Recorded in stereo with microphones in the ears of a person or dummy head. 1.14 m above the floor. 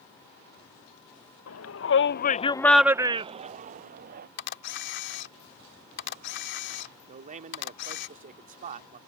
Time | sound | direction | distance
1.5 | a shout | 80° left | ?
4.4 | a camera shutter | 65° left (ahead or behind) | ?
7.1 | a man speaking | 40° right (ahead or behind) | ?